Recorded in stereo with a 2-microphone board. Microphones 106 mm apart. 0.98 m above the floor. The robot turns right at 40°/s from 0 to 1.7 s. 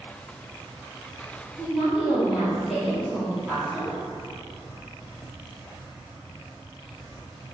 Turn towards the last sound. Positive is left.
turn(degrees=-10)  # may be behind; listen again after turning